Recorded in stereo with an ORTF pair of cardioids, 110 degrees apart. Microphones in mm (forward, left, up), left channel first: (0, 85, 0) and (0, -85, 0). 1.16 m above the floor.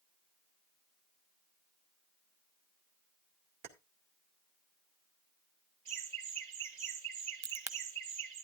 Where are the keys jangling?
65° right, 2 m.